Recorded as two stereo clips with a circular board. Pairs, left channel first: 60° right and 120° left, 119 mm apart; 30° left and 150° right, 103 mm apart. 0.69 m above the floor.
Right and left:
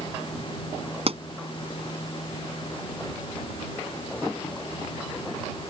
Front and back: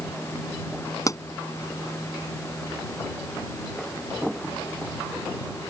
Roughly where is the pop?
Left.